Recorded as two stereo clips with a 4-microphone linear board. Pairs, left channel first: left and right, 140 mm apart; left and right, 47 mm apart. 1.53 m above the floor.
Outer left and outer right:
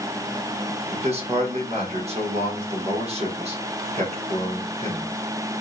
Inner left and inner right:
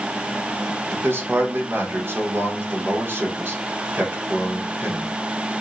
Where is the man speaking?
50° right (ahead or behind), 1.1 m.